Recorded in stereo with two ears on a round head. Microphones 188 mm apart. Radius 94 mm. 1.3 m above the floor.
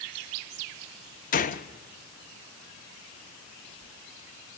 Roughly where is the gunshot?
Left.